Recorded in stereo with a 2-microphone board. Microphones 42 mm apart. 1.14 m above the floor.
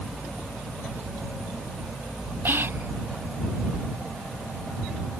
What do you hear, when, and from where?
2.5 s whispering: 55° right (ahead or behind)